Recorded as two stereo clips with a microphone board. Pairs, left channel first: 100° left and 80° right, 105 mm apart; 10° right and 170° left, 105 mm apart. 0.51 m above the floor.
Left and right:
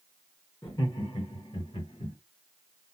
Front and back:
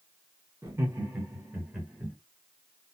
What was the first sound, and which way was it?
Laughter, 125° left.